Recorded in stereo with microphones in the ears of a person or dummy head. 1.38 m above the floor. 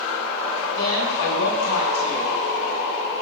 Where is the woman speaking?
65° left (ahead or behind), 5.5 m.